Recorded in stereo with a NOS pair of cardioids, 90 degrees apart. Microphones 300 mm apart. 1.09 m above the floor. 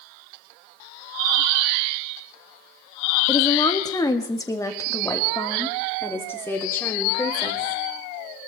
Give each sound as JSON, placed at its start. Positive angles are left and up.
{"t": 3.3, "sound": "a woman speaking", "azimuth_deg": 15, "distance_m": 1.5}